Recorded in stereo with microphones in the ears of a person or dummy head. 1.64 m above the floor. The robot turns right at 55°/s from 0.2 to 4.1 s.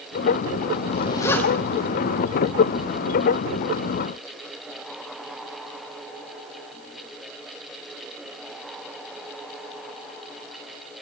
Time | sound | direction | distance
0.9 | a zipper | 35° left (ahead or behind) | 0.7 m